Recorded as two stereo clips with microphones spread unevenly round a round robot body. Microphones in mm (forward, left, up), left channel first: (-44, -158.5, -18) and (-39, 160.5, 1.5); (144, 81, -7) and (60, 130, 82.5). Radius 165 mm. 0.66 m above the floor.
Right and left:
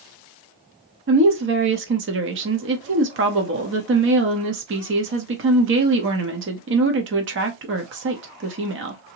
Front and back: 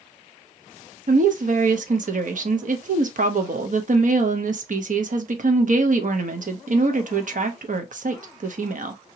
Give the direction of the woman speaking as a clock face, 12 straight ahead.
8 o'clock.